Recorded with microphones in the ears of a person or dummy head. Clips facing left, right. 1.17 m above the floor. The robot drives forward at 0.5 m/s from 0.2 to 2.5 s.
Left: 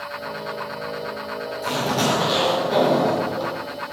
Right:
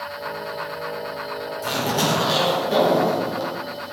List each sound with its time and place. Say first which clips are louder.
1.6 s a zipper: left 1 dB; 10° right (ahead or behind), 4 m